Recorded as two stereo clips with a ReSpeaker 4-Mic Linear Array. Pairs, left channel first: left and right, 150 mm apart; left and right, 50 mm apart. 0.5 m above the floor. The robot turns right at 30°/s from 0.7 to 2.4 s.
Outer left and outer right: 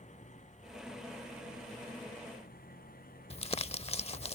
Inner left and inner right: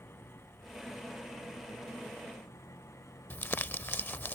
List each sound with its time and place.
0.0 s an engine running: 55° left; by 4.4 s 105° left
3.3 s crumpling: 45° left (ahead or behind)